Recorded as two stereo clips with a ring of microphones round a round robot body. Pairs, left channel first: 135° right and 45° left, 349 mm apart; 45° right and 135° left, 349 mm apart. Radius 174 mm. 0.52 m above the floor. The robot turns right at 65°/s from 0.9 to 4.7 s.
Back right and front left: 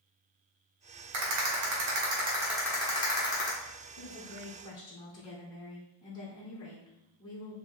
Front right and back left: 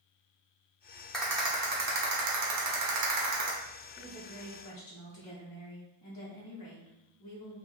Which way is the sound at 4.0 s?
105° right.